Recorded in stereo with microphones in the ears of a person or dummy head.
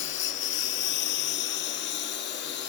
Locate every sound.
0.0 s a lawn mower: 60° left (ahead or behind); by 2.7 s 55° left (ahead or behind)